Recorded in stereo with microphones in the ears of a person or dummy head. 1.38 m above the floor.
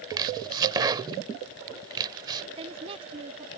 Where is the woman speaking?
35° right (ahead or behind).